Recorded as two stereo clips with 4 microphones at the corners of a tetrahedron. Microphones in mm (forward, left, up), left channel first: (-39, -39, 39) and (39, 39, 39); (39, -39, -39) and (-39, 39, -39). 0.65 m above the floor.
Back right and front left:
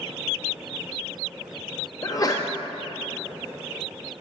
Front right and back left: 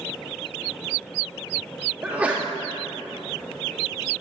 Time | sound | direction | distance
2.0 | a sneeze | 160° right | 0.6 m